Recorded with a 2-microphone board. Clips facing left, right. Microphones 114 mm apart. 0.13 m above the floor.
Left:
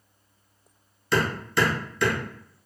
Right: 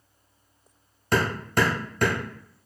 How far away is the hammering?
About 1.2 m.